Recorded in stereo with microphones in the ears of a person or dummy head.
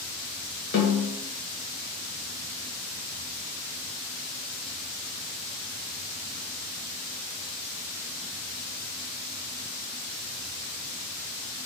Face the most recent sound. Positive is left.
turn(degrees=55)  # may be behind; listen again after turning